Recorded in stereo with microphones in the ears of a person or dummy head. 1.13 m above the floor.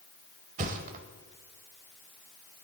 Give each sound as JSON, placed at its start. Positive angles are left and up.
{"t": 0.6, "sound": "a thud", "side_deg": -40, "distance_m": 1.2}